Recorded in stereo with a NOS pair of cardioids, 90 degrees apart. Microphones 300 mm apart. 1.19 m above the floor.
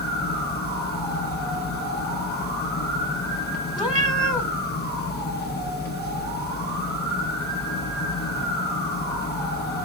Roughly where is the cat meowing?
Ahead.